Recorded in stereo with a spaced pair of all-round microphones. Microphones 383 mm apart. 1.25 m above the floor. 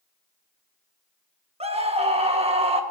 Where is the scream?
15° right (ahead or behind), 1.3 m.